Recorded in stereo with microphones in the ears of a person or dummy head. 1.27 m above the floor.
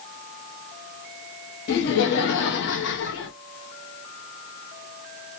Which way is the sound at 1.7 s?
55° left (ahead or behind).